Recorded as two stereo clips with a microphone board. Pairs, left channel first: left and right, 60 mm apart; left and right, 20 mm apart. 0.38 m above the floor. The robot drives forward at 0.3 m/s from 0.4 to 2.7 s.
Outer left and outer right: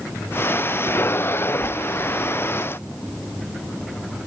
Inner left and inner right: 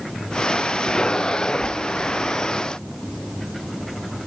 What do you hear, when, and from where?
Only background noise.